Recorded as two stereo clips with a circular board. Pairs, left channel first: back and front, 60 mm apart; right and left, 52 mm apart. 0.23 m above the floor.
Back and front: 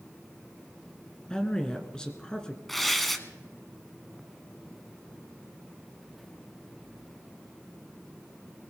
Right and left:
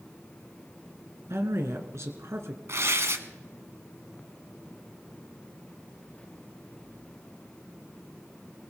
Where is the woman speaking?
105° left, 2.5 m.